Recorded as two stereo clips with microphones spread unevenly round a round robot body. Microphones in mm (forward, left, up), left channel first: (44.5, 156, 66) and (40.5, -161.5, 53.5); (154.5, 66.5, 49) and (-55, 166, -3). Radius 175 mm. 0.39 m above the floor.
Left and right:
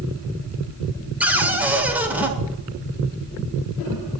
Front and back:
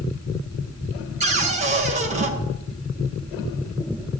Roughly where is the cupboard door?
Behind.